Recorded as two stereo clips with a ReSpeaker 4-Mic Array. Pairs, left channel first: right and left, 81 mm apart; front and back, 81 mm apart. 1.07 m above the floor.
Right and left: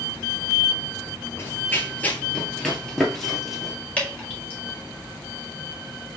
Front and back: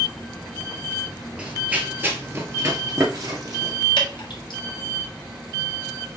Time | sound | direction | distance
1.4 | running footsteps | 110° right | 1.2 m
4.0 | dripping | 15° right | 1.8 m